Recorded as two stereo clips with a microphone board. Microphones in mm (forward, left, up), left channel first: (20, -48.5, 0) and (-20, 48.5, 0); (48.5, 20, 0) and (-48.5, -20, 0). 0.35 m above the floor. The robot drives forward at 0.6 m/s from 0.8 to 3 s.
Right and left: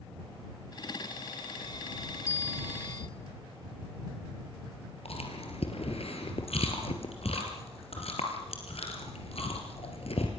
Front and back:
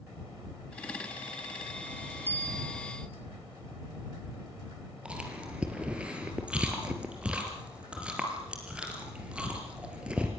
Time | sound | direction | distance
2.3 | a bell | 110° right | 1.0 m
5.0 | chewing | 80° right | 3.5 m